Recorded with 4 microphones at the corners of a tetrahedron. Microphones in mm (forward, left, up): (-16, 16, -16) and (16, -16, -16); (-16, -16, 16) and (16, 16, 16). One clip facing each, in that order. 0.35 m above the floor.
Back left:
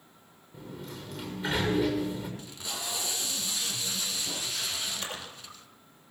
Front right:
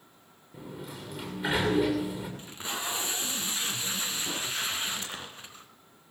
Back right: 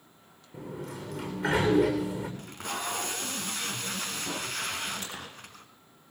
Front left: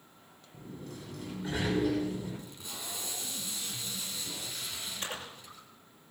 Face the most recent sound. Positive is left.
turn(degrees=75)